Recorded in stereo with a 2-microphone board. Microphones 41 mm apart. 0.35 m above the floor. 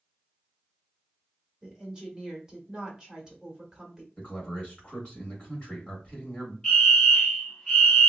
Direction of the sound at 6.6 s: 10° left (ahead or behind).